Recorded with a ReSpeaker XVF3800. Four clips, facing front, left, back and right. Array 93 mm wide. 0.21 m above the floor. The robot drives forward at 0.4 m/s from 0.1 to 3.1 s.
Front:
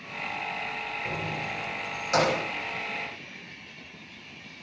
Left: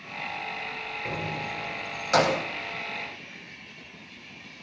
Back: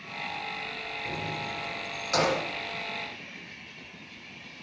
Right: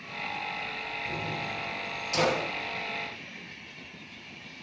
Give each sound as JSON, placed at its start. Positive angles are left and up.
{"t": 1.1, "sound": "keys jangling", "azimuth_deg": 75, "distance_m": 5.5}